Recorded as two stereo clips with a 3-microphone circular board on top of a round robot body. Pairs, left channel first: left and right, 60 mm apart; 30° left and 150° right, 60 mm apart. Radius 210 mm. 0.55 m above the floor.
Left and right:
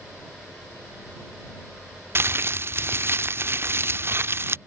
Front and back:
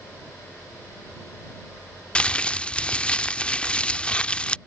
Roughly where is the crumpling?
Ahead right.